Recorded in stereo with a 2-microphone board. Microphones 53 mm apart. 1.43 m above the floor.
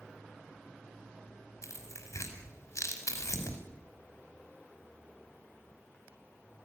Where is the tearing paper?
65° left (ahead or behind), 5 m.